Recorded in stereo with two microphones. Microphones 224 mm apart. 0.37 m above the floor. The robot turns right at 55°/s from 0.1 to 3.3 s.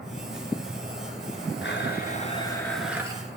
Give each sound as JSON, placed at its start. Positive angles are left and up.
{"t": 1.6, "sound": "a blender", "azimuth_deg": 115, "distance_m": 1.8}